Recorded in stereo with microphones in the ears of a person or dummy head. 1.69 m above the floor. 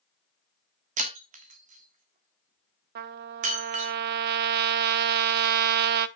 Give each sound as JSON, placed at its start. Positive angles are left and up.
{"t": 1.0, "sound": "breaking glass", "side_deg": -35, "distance_m": 1.5}
{"t": 3.0, "sound": "a trumpet", "side_deg": -50, "distance_m": 0.7}